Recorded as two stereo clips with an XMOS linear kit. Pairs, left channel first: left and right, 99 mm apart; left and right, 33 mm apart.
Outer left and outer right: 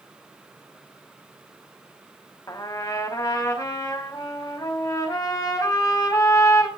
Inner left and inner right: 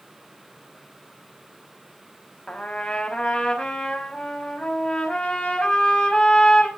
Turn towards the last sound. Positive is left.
turn(degrees=35)  # may be behind; listen again after turning